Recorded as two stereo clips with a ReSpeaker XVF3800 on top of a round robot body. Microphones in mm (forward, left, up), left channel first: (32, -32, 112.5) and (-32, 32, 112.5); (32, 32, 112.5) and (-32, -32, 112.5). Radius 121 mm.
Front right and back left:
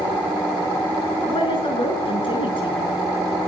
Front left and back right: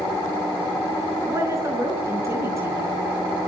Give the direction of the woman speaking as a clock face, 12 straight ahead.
2 o'clock.